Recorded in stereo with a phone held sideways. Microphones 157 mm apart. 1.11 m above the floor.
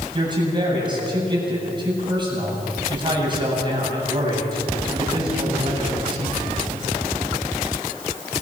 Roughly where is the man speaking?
Right.